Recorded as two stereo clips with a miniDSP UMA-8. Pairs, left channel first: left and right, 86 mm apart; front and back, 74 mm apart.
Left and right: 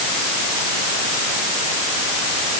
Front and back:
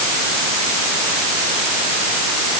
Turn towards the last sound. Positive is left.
No sound to turn to.